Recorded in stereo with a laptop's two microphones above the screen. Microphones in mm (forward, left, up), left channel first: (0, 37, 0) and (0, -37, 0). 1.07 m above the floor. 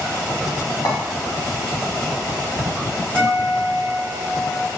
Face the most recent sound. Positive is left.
turn(degrees=15)  # may be behind; listen again after turning